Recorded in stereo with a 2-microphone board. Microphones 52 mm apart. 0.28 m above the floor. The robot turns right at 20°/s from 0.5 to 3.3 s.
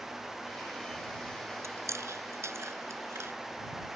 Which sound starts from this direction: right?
Chewing, at 1.6 s.